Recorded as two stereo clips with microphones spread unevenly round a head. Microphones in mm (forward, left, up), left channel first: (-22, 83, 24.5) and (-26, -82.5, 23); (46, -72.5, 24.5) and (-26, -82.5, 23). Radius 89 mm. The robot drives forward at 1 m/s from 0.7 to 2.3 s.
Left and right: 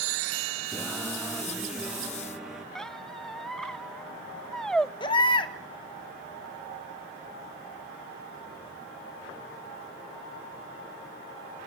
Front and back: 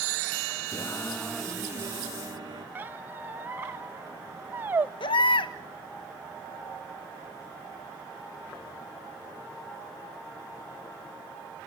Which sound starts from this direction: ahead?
Singing, at 0.7 s.